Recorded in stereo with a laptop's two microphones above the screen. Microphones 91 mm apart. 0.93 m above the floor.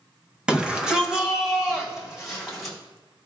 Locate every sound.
0.5 s a shout: 10° right (ahead or behind), 0.7 m; by 2.8 s 5° right (ahead or behind), 2.5 m